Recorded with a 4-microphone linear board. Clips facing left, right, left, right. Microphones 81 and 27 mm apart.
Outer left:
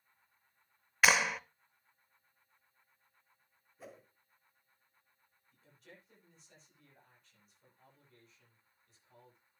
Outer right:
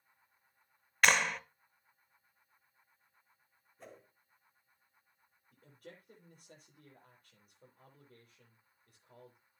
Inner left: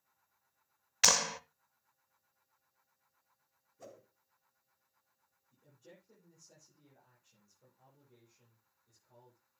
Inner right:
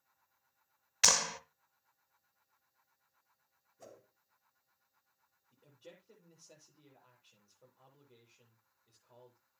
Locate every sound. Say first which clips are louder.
1.0 s a clap: even, inner left 1 dB; 5° left (ahead or behind), 0.6 m
3.8 s a whoosh: outer left 1 dB, inner left 2 dB; 5° left (ahead or behind), 1.9 m
5.5 s a man speaking: outer right 5 dB, inner right 3 dB; 55° right (ahead or behind), 8.5 m